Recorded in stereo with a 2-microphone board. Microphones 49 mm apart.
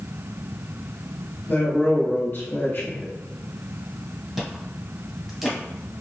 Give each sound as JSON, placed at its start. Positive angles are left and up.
{"t": 1.5, "sound": "a man speaking", "side_deg": 45, "distance_m": 1.6}
{"t": 4.4, "sound": "chewing", "side_deg": -5, "distance_m": 1.3}